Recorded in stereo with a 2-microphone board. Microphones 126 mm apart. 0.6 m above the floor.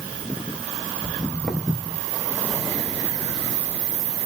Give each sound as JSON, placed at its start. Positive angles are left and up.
{"t": 1.0, "sound": "footsteps", "side_deg": 0, "distance_m": 1.1}